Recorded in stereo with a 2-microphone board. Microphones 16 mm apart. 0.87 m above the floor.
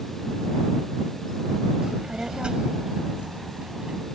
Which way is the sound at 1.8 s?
75° right (ahead or behind).